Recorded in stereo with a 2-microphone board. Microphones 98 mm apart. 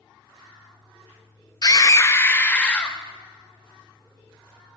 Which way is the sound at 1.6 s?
40° left (ahead or behind).